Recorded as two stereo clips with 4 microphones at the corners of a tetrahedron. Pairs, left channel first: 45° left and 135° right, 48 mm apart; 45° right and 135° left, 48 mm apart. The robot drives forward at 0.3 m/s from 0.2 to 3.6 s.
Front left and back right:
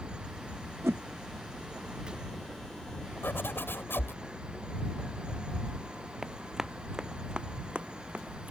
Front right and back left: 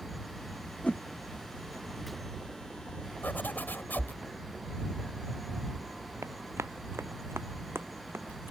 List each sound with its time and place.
0.8 s a whoosh: 105° right; by 1.0 s 110° right
3.2 s a zipper: straight ahead; by 4.2 s 5° left
6.2 s running footsteps: 140° left; by 8.5 s 170° left